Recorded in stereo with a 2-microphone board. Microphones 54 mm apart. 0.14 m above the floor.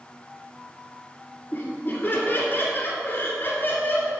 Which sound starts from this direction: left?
Laughter, at 1.5 s.